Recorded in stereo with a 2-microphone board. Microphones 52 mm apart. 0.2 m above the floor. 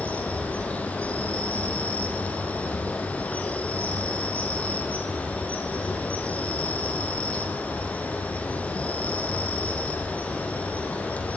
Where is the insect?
25° left (ahead or behind), 3 m.